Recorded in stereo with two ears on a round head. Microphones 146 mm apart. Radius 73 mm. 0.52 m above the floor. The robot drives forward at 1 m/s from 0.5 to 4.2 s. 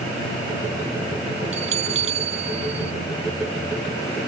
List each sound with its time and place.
1.5 s a bell: 45° right (ahead or behind); by 2.9 s 40° right (ahead or behind)